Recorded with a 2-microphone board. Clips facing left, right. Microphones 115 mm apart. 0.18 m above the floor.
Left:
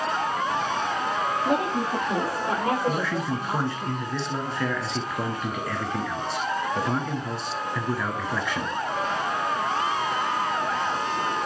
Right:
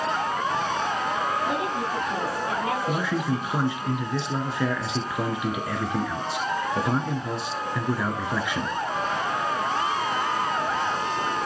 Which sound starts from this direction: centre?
A man speaking, at 2.9 s.